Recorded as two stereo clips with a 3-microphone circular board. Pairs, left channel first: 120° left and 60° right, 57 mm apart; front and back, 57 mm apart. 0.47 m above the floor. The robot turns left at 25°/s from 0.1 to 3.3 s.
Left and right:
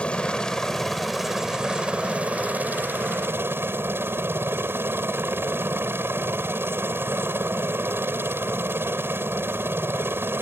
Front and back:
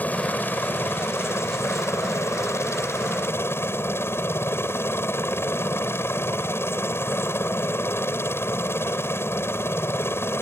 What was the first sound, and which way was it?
A helicopter, 55° left.